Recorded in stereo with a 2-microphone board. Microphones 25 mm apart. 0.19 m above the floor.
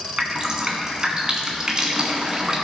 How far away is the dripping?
About 1.8 m.